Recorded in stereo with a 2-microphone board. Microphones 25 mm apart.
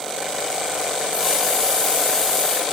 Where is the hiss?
15° left (ahead or behind), 5.5 m.